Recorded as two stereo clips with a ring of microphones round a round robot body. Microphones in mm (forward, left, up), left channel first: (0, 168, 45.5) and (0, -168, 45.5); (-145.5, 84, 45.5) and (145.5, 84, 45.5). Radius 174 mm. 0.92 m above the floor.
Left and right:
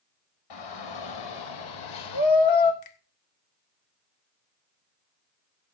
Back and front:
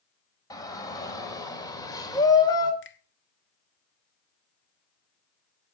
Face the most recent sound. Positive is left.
turn(degrees=130)